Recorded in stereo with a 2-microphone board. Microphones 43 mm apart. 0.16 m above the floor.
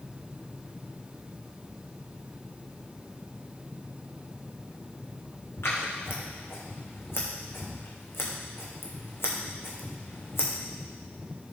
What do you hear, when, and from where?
5.6 s scissors: 65° left (ahead or behind), 3 m